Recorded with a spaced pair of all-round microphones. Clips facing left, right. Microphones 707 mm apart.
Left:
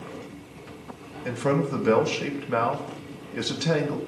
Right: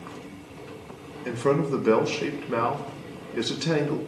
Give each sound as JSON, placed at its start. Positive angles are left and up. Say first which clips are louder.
{"t": 1.2, "sound": "a man speaking", "louder": "right 2 dB", "side_deg": 20, "distance_m": 1.3}